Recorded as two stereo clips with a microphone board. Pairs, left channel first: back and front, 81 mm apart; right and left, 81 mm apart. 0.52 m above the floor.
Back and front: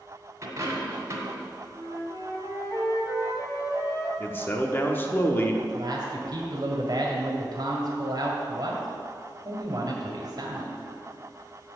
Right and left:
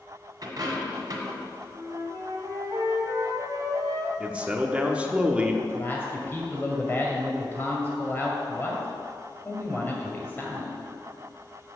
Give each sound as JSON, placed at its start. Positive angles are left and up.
{"t": 0.4, "sound": "a dropped coin", "azimuth_deg": 50, "distance_m": 1.8}
{"t": 1.7, "sound": "a flute", "azimuth_deg": 135, "distance_m": 1.5}
{"t": 4.2, "sound": "a man speaking", "azimuth_deg": 150, "distance_m": 0.9}
{"t": 5.6, "sound": "a man speaking", "azimuth_deg": -25, "distance_m": 1.7}